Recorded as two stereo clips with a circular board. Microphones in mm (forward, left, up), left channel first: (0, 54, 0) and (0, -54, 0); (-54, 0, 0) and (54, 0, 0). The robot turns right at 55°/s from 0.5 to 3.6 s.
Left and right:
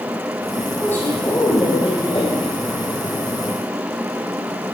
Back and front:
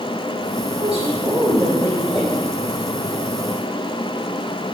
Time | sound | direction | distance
0.8 | a woman speaking | 15° left | 5 m